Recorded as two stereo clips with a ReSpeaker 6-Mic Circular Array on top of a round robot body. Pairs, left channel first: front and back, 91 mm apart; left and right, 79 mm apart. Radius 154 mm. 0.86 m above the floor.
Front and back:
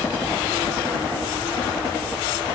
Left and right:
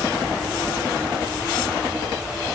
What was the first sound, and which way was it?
Only background noise.